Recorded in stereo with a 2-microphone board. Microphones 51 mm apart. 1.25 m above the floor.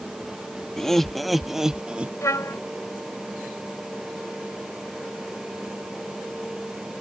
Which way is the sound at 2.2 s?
80° left.